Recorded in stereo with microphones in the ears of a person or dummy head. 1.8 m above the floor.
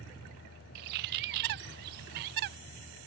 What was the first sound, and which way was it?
A bird, 55° right (ahead or behind).